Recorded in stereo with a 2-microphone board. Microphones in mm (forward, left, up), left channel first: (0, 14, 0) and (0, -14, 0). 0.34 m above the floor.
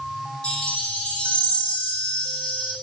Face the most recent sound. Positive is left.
turn(degrees=40)  # may be behind; listen again after turning